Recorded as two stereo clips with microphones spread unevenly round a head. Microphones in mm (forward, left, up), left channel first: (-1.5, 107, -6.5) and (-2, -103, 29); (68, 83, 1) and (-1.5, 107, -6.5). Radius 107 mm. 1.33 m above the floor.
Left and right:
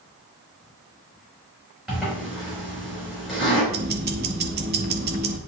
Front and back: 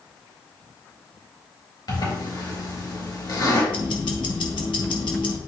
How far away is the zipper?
About 4 m.